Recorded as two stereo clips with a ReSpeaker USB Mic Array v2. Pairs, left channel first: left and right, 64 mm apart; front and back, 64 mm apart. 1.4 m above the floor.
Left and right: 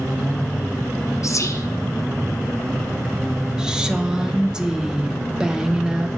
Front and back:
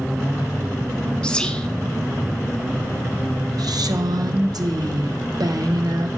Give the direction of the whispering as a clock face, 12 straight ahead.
10 o'clock.